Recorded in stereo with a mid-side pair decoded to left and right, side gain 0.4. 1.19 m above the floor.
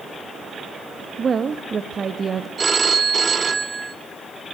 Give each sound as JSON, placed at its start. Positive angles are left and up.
{"t": 1.2, "sound": "a woman speaking", "azimuth_deg": -40, "distance_m": 1.6}
{"t": 2.6, "sound": "a phone ringing", "azimuth_deg": -35, "distance_m": 1.4}